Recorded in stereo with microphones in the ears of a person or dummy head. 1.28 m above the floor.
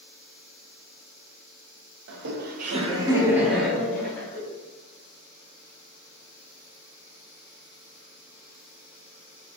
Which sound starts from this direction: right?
Laughter, at 2.1 s.